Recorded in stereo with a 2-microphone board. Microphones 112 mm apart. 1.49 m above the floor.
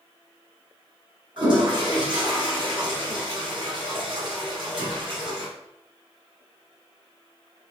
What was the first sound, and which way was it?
A toilet flushing, 50° right (ahead or behind).